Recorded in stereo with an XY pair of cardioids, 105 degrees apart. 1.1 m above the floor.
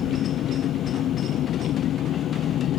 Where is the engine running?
70° left.